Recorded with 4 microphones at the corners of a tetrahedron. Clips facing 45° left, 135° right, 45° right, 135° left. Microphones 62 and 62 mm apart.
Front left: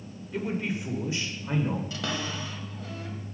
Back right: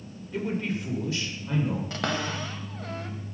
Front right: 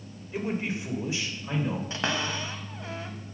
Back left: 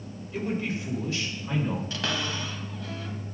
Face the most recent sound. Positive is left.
turn(degrees=-105)